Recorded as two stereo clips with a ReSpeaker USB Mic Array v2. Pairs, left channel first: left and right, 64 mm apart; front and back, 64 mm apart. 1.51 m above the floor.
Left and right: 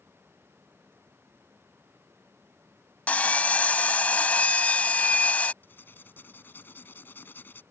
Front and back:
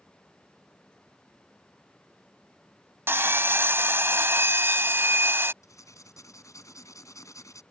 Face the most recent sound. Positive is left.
turn(degrees=30)